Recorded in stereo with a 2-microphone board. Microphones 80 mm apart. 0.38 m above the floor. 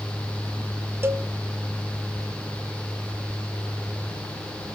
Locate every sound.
1.0 s a cowbell: 30° right (ahead or behind), 0.5 m